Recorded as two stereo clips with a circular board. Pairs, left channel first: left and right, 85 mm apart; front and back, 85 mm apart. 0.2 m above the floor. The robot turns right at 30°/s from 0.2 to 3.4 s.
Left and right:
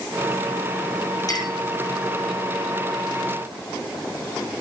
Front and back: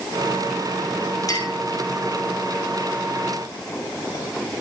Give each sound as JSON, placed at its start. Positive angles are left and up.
{"t": 1.3, "sound": "a clink", "azimuth_deg": 45, "distance_m": 6.5}